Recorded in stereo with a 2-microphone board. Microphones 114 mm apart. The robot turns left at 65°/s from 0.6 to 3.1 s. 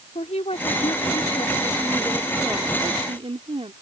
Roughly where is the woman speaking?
Left.